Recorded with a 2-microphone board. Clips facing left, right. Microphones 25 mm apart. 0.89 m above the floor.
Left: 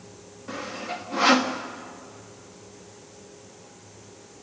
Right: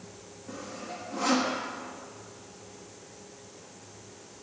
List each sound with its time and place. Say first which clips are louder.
0.5 s sawing: left 7 dB; 55° left (ahead or behind), 1.5 m